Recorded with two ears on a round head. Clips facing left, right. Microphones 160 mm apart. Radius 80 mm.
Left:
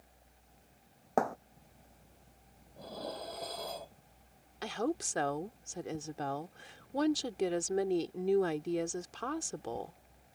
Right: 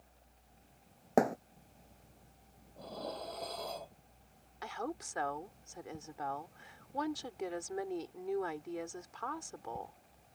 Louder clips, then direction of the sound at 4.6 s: Left 6 dB; 40° left (ahead or behind).